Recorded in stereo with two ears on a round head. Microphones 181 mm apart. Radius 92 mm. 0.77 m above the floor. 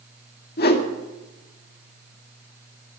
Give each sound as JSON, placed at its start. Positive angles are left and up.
{"t": 0.6, "sound": "a whoosh", "side_deg": 50, "distance_m": 2.0}